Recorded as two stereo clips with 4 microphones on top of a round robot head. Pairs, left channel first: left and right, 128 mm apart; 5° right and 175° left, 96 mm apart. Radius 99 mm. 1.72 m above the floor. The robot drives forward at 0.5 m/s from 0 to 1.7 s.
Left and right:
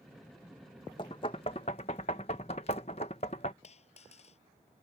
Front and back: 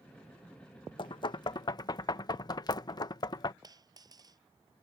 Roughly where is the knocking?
Ahead left.